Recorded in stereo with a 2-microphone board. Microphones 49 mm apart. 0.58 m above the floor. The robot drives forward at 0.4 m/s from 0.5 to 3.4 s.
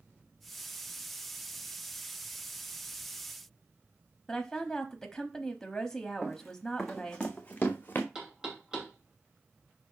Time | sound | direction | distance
4.3 | a woman speaking | 10° left (ahead or behind) | 1.0 m
6.2 | running footsteps | 5° right (ahead or behind) | 1.8 m
8.2 | knocking | 15° right (ahead or behind) | 2.5 m